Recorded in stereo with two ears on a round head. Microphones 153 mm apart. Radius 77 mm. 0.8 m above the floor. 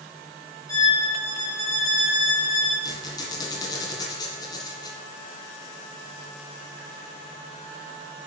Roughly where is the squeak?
Left.